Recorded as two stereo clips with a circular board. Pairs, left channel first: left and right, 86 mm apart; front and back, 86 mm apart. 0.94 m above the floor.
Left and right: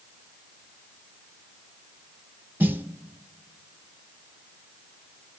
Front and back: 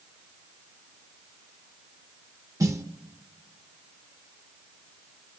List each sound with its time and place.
2.6 s a snare drum: 145° right, 0.8 m